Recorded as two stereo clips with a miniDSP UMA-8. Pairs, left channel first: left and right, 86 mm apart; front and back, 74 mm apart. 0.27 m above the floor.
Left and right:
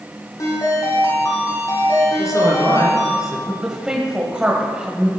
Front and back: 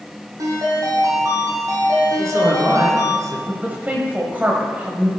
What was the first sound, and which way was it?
A ringtone, 145° left.